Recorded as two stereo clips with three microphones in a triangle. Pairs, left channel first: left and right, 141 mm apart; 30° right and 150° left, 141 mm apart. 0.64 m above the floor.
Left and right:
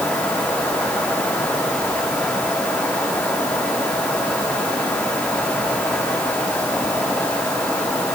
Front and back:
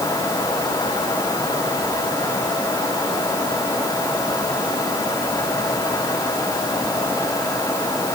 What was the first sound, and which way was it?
Only background noise.